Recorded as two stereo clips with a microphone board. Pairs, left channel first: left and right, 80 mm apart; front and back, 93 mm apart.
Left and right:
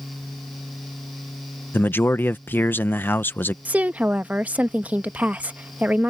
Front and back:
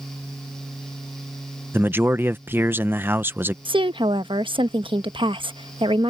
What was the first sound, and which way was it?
A man speaking, 135° left.